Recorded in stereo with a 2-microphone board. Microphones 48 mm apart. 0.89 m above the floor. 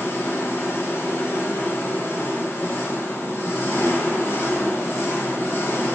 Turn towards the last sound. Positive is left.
turn(degrees=60)  # may be behind; listen again after turning